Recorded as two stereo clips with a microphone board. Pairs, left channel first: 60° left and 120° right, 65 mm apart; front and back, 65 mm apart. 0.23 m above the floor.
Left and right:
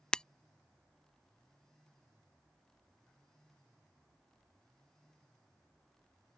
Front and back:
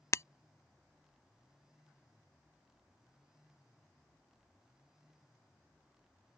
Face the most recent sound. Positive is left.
turn(degrees=-10)